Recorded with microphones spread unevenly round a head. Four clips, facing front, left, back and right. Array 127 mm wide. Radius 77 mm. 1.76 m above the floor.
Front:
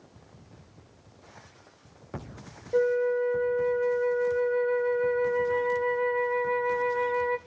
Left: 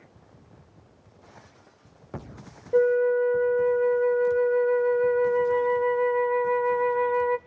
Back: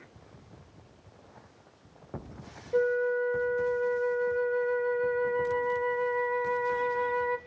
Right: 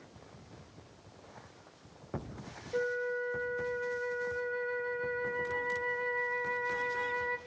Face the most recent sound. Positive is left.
turn(degrees=85)